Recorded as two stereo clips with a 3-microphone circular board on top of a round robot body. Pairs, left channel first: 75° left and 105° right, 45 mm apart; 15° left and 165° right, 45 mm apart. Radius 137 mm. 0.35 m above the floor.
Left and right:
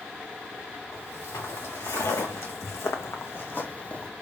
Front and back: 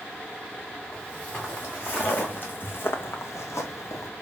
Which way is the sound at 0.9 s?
80° left.